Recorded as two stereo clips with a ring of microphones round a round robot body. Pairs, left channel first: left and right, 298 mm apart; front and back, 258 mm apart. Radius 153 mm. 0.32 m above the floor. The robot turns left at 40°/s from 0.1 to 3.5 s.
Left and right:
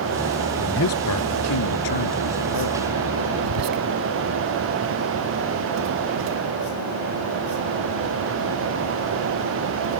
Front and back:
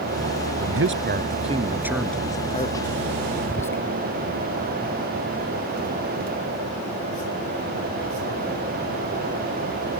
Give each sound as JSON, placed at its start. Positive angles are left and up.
{"t": 0.6, "sound": "a man speaking", "azimuth_deg": 150}
{"t": 3.4, "sound": "whispering", "azimuth_deg": -80}